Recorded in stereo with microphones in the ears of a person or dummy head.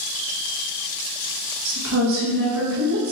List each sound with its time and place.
1.6 s a woman speaking: 65° right (ahead or behind), 1.2 m